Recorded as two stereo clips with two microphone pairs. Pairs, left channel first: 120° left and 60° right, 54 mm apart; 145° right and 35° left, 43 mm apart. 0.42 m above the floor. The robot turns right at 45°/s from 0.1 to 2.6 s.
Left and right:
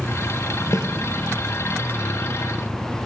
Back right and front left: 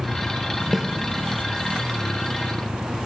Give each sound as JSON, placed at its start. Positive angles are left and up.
{"t": 0.7, "sound": "a snare drum", "azimuth_deg": 120, "distance_m": 1.2}